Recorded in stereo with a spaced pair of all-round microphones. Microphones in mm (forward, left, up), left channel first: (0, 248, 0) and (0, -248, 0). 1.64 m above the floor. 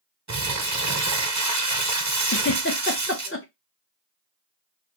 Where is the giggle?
25° left (ahead or behind), 0.6 m.